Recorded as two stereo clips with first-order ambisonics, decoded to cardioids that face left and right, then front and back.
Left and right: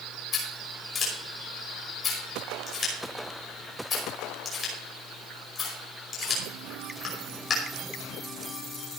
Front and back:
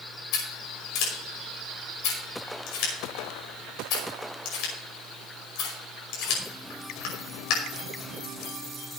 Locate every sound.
0.3 s scissors: 25° left, 5.5 m